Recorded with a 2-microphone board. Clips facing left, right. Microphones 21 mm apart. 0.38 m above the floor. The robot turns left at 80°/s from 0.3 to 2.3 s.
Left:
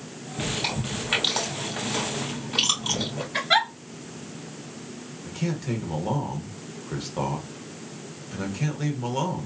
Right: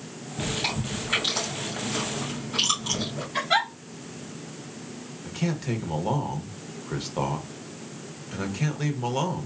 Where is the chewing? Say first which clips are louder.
Even; 15° right (ahead or behind), 3 m; by 3.2 s 35° left (ahead or behind), 3 m.